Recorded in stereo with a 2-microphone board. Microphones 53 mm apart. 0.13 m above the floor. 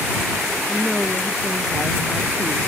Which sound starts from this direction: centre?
A woman speaking, at 0.7 s.